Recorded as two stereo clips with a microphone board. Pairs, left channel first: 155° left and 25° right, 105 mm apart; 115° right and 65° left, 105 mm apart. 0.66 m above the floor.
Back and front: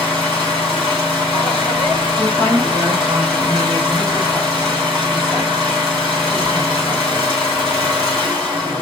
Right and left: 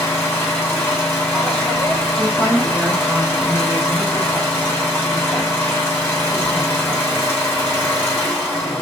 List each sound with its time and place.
0.0 s an engine running: 45° right, 1.4 m
2.2 s a woman speaking: 5° right, 1.3 m